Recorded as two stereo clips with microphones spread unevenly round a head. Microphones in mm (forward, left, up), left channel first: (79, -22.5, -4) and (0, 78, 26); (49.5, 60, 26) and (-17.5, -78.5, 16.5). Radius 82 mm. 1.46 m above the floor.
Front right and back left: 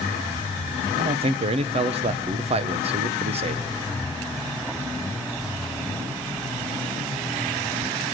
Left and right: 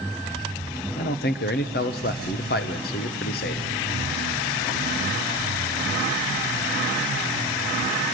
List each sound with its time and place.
0.9 s a man speaking: 95° left, 0.6 m